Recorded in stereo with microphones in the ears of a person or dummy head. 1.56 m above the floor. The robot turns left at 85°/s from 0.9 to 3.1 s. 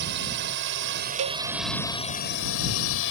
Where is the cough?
I don't hear a cough.